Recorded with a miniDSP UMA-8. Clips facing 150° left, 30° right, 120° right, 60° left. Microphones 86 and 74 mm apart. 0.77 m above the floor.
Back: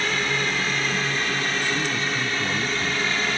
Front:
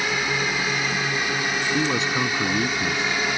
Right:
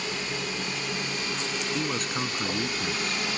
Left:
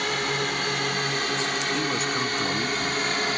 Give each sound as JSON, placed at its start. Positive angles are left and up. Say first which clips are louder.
{"t": 0.0, "sound": "a drone", "louder": "even, left 6 dB", "azimuth_deg": 50}
{"t": 1.7, "sound": "a man speaking", "louder": "front 3 dB, left 3 dB", "azimuth_deg": -25}